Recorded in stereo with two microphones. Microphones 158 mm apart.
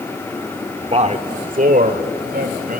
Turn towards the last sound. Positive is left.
turn(degrees=-70)  # may be behind; listen again after turning